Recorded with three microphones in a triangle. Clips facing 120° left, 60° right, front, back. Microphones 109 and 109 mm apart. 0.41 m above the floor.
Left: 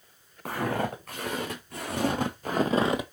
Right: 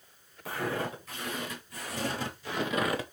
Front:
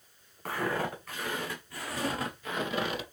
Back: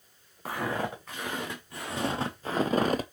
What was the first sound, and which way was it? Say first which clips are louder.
Footsteps: left 4 dB, even; 105° left.